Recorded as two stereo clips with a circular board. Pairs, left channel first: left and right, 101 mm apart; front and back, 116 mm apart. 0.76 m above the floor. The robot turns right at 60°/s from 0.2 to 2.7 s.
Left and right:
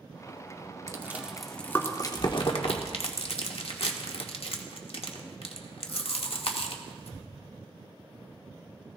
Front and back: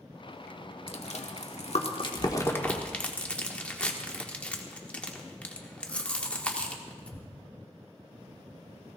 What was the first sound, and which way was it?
Chewing, 30° right.